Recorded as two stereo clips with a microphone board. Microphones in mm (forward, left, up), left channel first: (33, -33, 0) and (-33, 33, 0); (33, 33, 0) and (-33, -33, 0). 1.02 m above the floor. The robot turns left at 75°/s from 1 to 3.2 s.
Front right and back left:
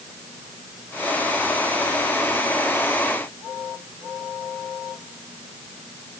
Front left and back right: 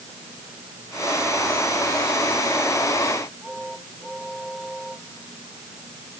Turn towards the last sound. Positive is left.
No sound to turn to.